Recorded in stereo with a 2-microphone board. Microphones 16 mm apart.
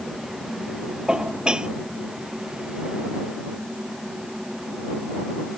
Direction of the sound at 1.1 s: 65° right (ahead or behind).